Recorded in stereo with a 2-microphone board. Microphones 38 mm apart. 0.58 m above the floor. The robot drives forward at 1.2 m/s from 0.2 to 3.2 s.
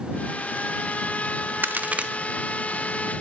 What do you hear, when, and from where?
1.6 s a crack: 60° right (ahead or behind), 0.6 m; by 2.1 s 30° right (ahead or behind), 1.0 m